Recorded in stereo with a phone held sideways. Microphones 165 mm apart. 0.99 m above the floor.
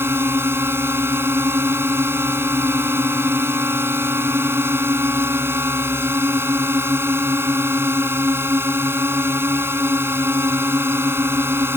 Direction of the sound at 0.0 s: 15° right (ahead or behind).